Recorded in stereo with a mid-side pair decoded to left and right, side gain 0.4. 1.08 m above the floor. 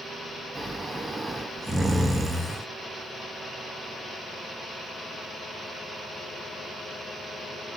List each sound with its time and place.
0.6 s snoring: 25° right, 1.5 m